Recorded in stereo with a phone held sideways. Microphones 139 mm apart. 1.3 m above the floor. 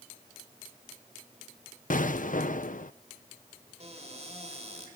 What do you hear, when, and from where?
1.9 s an explosion: 70° left (ahead or behind), 0.6 m
3.8 s a cupboard door: 50° right (ahead or behind), 5.5 m